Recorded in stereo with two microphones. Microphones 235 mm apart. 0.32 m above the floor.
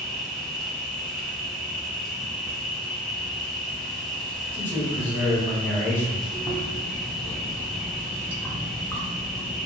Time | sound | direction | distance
0.0 | an insect | centre (ahead or behind) | 0.9 m
4.5 | a man speaking | 10° left (ahead or behind) | 1.2 m
6.3 | chewing | 10° left (ahead or behind) | 0.7 m